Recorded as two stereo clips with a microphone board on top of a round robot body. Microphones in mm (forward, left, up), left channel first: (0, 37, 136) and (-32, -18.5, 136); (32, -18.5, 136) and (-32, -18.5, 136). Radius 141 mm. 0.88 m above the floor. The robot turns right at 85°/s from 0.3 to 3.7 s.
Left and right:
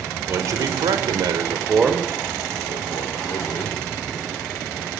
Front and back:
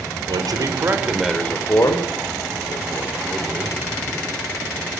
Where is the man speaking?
175° right, 3 m; by 3.8 s 115° left, 3 m.